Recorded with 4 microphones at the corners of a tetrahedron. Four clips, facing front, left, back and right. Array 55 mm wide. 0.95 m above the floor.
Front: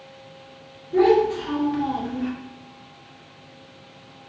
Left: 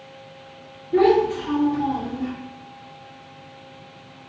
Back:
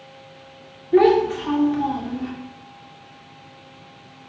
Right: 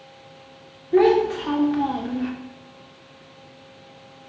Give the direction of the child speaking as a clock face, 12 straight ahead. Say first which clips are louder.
Even, back 2 dB; 5 o'clock.